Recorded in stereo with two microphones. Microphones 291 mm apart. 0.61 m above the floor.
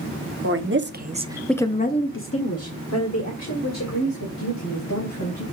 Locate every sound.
0.4 s a woman speaking: 50° right (ahead or behind), 1.3 m; by 5.4 s 65° left (ahead or behind), 4 m